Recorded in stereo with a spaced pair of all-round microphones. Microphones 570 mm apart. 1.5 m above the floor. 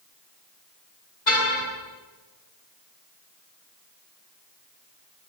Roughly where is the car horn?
Left.